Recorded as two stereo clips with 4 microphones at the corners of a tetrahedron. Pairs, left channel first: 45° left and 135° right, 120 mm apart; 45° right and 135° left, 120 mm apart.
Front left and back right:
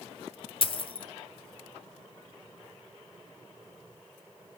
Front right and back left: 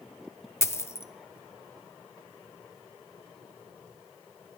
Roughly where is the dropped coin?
Ahead.